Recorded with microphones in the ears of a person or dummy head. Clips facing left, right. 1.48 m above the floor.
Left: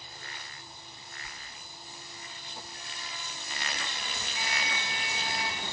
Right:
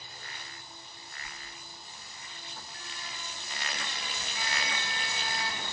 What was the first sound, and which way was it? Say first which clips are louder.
A sliding door: even; 15° left (ahead or behind).